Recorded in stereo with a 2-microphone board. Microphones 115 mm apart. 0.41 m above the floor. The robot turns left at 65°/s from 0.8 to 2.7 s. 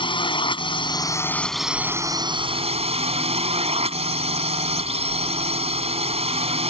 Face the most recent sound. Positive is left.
turn(degrees=-70)